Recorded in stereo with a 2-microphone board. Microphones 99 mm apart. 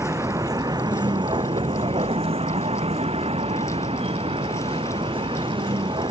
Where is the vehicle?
30° right (ahead or behind); by 6.1 s 55° right (ahead or behind).